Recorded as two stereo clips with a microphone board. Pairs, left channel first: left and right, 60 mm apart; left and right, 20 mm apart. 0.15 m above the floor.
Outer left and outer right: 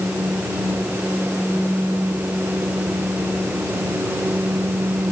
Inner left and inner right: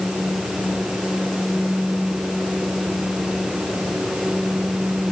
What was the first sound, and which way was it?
Only background noise.